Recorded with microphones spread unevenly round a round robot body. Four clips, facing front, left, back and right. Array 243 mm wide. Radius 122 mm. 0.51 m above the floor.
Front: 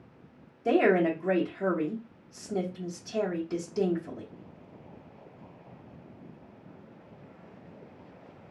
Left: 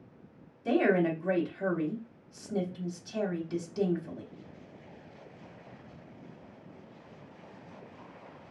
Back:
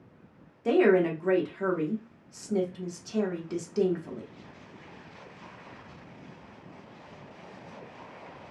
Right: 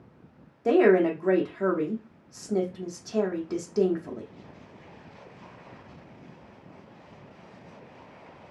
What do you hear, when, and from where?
0.7 s a woman speaking: 95° right, 0.8 m